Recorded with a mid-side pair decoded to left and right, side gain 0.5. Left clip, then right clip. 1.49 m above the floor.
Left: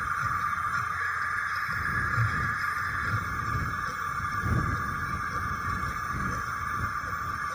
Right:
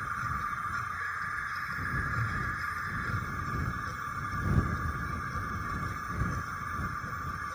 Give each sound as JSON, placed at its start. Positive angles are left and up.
{"t": 0.0, "sound": "a machine running", "azimuth_deg": 35}